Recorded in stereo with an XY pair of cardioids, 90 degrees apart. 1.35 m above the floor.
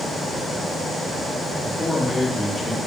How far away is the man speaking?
About 2.5 m.